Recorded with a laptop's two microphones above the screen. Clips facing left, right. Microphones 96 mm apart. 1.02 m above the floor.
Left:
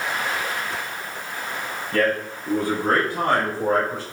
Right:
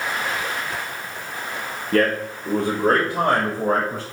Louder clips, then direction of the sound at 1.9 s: Right 2 dB; 65° right (ahead or behind).